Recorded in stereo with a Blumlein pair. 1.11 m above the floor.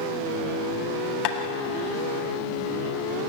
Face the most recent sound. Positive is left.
turn(degrees=40)